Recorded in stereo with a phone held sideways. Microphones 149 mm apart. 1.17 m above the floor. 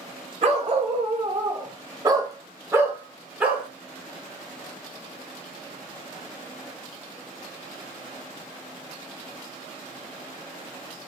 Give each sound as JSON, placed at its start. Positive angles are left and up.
{"t": 0.4, "sound": "a dog barking", "side_deg": -45, "distance_m": 1.3}